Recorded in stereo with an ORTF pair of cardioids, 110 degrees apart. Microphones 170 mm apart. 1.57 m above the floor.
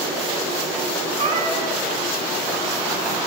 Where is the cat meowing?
40° right, 7 m.